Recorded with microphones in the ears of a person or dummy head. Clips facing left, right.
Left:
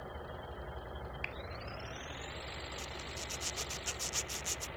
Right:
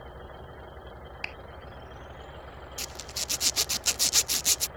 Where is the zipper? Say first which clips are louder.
Right 2 dB; 80° right.